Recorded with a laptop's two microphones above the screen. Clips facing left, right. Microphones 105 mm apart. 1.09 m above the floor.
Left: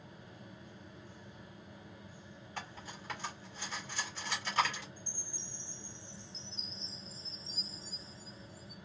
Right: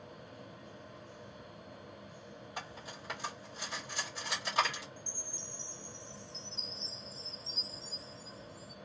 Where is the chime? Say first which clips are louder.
Right 3 dB; 40° left (ahead or behind), 1.5 m.